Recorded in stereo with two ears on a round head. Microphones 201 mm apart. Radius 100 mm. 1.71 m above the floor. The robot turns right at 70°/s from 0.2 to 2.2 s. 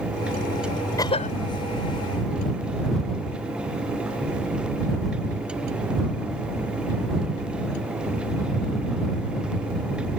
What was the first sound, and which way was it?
A cough, 15° left (ahead or behind).